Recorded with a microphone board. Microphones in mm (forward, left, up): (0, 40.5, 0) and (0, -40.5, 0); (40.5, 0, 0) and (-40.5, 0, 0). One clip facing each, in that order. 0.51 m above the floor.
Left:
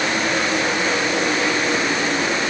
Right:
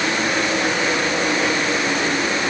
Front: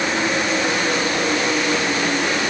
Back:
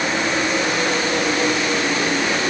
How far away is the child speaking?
No child speaking in this recording.